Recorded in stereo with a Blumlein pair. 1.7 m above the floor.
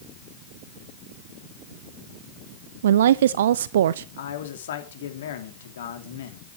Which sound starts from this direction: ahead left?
A man speaking, at 4.2 s.